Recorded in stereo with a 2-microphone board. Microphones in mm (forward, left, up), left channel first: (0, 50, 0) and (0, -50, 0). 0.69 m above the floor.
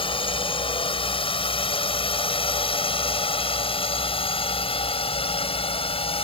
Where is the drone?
60° left (ahead or behind); by 6.2 s 70° left (ahead or behind).